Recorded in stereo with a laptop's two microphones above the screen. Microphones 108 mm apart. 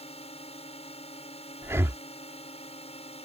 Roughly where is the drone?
Left.